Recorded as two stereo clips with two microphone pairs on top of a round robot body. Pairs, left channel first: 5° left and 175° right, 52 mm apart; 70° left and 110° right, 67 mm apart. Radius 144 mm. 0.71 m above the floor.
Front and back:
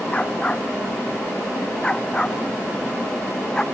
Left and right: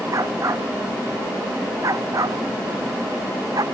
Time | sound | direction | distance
0.1 | a dog barking | 65° right | ?